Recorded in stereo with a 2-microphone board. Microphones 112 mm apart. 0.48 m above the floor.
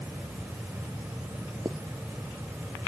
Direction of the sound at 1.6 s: 35° right (ahead or behind).